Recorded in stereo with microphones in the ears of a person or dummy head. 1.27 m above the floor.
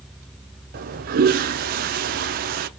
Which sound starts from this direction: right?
A toilet flushing, at 0.7 s.